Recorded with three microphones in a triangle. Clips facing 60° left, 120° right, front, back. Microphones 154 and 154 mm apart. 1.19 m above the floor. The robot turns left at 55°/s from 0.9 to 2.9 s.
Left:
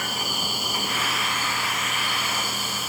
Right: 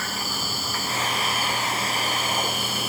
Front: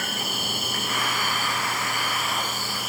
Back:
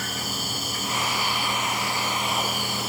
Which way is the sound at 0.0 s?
15° right.